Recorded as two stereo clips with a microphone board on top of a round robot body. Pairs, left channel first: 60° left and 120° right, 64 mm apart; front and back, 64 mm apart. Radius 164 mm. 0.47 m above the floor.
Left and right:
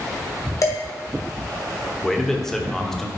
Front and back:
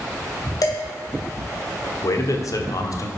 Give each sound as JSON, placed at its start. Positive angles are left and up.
{"t": 0.6, "sound": "dishes clattering", "azimuth_deg": 25, "distance_m": 2.5}
{"t": 2.0, "sound": "a man speaking", "azimuth_deg": -25, "distance_m": 1.5}